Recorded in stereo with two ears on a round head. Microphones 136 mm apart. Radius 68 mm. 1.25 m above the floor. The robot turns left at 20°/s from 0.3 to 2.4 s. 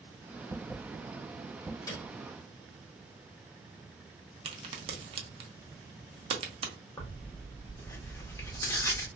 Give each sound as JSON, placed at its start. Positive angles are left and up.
{"t": 1.9, "sound": "a piano", "side_deg": 25, "distance_m": 1.0}
{"t": 4.5, "sound": "a crack", "side_deg": -40, "distance_m": 0.7}
{"t": 7.0, "sound": "tearing paper", "side_deg": 20, "distance_m": 0.8}